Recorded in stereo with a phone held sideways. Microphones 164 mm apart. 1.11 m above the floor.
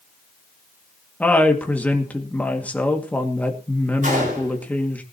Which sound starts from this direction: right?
A gunshot, at 4.0 s.